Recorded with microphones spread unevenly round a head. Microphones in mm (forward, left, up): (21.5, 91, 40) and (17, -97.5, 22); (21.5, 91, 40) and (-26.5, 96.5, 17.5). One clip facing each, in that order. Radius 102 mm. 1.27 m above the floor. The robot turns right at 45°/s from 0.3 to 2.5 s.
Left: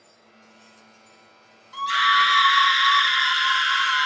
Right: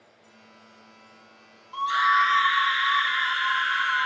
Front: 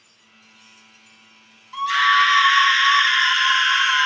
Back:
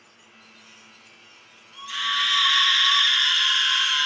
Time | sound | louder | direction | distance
1.7 | a scream | left 1 dB, front 11 dB | 20° left | 0.5 m